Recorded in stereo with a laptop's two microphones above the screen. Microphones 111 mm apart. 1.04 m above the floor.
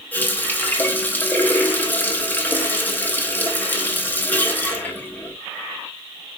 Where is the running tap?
15° left (ahead or behind), 0.8 m.